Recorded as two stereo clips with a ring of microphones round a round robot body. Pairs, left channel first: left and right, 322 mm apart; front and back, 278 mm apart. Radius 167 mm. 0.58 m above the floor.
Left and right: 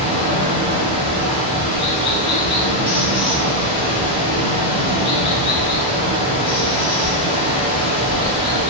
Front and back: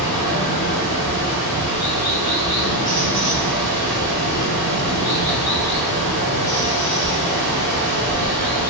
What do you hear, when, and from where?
0.0 s running water: 5° right, 1.5 m